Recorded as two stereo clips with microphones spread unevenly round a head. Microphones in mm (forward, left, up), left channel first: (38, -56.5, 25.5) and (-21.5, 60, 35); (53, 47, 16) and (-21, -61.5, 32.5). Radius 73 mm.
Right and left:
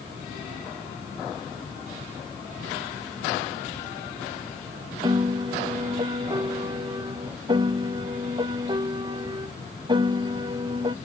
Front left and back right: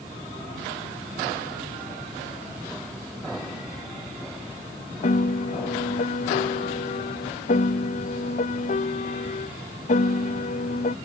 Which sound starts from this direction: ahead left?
A piano, at 5.0 s.